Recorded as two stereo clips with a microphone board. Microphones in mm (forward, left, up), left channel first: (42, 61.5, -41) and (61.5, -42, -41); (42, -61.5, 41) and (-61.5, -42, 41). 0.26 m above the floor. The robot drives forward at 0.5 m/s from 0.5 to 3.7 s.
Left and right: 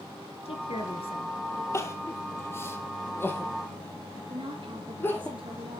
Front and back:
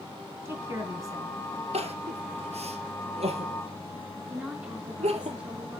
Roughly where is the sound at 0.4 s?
Left.